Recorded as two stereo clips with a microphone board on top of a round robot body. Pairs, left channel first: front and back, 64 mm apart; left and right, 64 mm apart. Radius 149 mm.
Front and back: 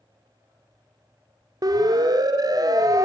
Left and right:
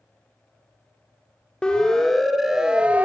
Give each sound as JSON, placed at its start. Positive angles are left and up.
{"t": 1.6, "sound": "a siren", "azimuth_deg": 165, "distance_m": 3.5}